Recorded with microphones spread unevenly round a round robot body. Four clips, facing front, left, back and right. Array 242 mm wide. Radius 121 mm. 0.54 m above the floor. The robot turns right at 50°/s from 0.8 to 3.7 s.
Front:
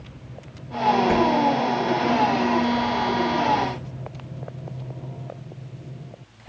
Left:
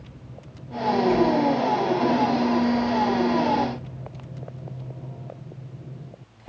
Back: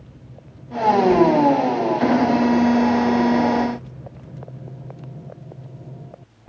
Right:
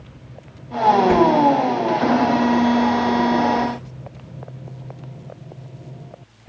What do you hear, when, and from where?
1.1 s a whoosh: 65° right, 1.5 m; by 1.3 s 55° right, 1.5 m